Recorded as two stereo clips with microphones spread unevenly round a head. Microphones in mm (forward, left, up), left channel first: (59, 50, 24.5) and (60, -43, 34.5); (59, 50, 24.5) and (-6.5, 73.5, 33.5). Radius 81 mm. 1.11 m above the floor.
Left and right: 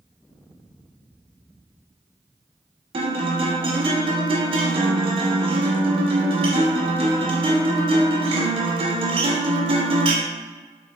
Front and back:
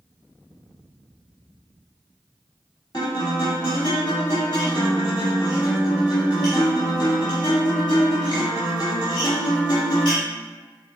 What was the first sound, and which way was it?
A guitar, 90° right.